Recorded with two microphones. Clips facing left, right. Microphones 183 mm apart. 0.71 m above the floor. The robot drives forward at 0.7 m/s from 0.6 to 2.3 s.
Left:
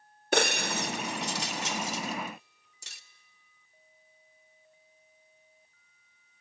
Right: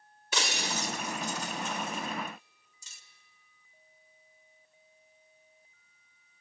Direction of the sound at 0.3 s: 55° left (ahead or behind).